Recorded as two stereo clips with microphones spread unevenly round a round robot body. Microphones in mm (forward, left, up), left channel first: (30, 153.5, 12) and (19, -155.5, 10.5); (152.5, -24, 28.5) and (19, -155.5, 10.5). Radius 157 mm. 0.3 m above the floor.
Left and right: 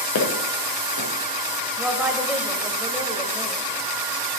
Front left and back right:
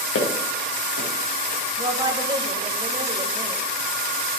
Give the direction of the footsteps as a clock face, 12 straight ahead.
11 o'clock.